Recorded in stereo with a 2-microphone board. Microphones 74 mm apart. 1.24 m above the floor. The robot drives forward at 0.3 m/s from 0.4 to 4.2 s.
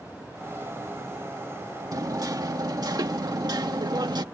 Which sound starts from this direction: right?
Hammering, at 1.9 s.